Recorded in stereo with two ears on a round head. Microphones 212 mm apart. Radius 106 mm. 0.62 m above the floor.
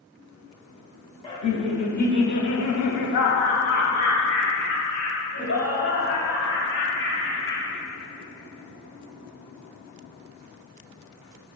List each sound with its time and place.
1.2 s laughter: 20° left (ahead or behind), 1.2 m; by 7.7 s 50° left (ahead or behind), 4.5 m